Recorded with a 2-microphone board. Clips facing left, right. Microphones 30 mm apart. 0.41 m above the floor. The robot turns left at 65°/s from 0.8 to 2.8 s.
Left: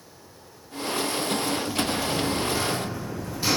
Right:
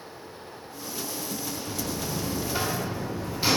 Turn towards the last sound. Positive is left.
turn(degrees=-155)